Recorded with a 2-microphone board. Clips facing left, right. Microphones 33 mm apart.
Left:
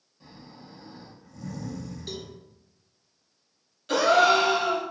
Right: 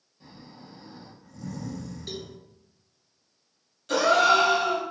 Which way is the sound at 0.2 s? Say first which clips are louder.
Even; centre (ahead or behind).